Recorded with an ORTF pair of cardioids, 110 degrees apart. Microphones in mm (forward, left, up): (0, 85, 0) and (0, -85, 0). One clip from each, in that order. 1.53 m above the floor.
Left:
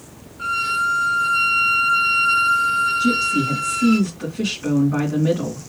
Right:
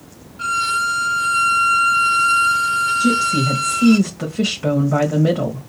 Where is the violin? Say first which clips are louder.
Right 2 dB; 70° right, 1.7 m.